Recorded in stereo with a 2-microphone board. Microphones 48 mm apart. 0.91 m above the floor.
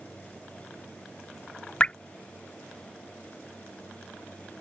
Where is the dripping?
20° left (ahead or behind).